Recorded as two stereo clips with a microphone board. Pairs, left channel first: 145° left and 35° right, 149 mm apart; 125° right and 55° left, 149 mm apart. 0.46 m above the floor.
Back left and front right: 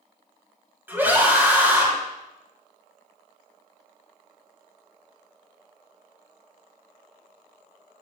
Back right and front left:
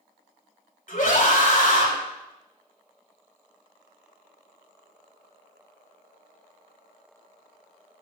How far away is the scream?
About 2.5 m.